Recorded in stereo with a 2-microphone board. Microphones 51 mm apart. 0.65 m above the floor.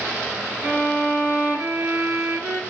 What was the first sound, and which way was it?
A violin, 35° right (ahead or behind).